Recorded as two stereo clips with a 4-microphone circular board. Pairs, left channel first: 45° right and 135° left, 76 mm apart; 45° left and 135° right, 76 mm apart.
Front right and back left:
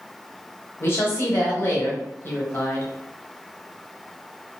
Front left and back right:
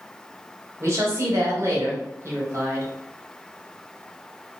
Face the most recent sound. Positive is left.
turn(degrees=-95)